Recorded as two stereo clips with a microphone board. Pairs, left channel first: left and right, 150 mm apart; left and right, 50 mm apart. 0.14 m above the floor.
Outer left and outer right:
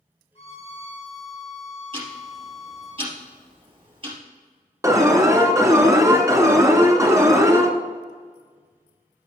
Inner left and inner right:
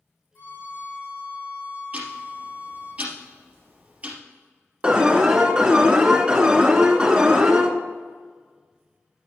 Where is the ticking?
35° right (ahead or behind), 3 m.